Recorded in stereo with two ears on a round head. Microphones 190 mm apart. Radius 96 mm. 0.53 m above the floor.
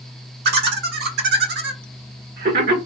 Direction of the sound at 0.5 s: 50° right (ahead or behind).